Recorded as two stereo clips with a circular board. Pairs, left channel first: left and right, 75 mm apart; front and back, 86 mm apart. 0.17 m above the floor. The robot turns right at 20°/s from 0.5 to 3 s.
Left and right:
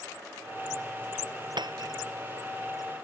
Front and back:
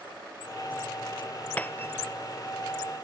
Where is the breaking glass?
75° right; by 2.0 s 65° right.